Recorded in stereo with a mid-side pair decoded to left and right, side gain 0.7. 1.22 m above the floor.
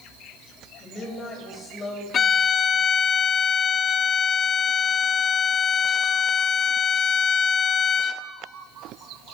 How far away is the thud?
No thud in this recording.